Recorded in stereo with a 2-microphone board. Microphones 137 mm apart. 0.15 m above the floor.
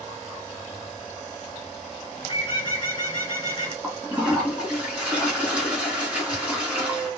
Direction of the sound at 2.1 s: 35° left (ahead or behind).